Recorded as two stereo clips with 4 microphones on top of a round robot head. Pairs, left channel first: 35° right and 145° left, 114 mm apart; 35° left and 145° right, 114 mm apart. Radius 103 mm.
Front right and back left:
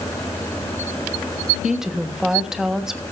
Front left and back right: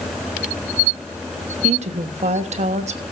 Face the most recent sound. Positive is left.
turn(degrees=-125)